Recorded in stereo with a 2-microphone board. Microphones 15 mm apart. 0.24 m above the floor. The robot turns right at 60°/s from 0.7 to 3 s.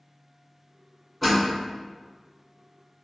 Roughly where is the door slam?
Centre.